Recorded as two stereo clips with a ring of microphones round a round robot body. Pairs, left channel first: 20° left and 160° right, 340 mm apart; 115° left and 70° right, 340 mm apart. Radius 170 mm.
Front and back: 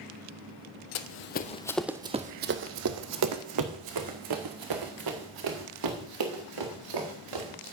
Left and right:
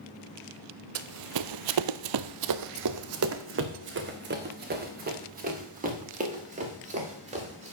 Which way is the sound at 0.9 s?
20° right.